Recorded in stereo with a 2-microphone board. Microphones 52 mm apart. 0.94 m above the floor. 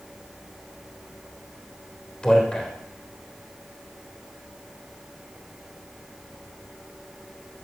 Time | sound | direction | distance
2.2 | a man speaking | 15° left (ahead or behind) | 3.5 m